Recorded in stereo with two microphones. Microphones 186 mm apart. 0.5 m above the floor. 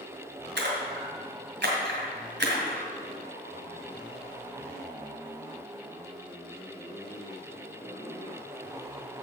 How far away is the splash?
About 2.5 m.